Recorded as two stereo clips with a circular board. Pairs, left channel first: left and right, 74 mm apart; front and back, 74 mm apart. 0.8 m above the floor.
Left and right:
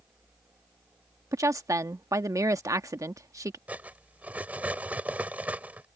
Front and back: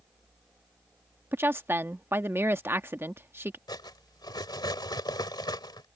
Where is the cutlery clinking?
20° right.